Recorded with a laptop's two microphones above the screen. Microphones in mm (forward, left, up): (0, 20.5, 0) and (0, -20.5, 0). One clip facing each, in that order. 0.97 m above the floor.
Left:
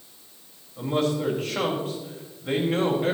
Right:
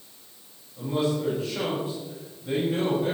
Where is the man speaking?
65° left (ahead or behind), 5 m.